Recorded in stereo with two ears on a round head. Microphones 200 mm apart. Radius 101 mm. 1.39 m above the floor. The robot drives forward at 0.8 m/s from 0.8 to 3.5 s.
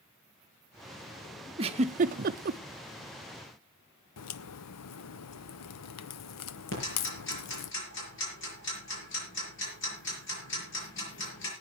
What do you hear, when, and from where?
1.6 s a giggle: 25° right (ahead or behind), 0.9 m; by 2.6 s 45° right (ahead or behind), 0.6 m
4.2 s a crack: 85° left, 0.7 m
6.7 s ticking: 55° left (ahead or behind), 6.5 m